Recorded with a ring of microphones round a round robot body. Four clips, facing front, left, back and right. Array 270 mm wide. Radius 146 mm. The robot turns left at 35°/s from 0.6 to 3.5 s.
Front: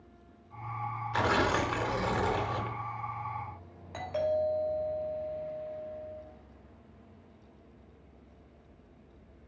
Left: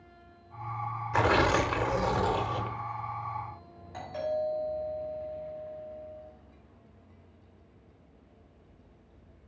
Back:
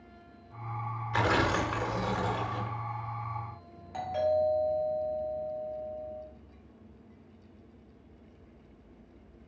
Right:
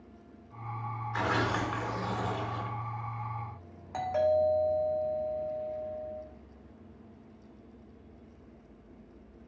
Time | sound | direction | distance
1.1 | tearing paper | 105° left | 1.1 m
3.9 | a doorbell | 70° right | 3 m